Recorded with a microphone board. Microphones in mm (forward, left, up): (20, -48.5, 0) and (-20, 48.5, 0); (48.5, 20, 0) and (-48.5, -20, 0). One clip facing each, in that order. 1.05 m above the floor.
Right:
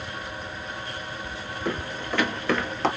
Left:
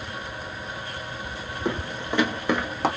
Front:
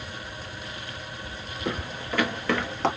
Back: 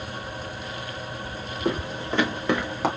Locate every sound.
1.6 s footsteps: 170° left, 1.4 m; by 2.9 s 155° left, 1.0 m